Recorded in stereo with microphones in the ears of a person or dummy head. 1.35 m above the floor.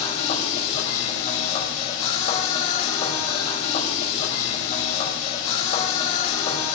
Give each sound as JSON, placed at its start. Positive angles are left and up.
{"t": 0.0, "sound": "a machine running", "side_deg": 35, "distance_m": 5.0}